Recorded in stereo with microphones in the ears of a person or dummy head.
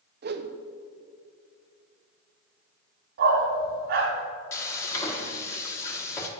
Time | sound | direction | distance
0.2 | a whoosh | 50° right (ahead or behind) | 0.5 m
3.2 | a dog barking | 55° right (ahead or behind) | 1.9 m
4.5 | frying | 15° left (ahead or behind) | 1.1 m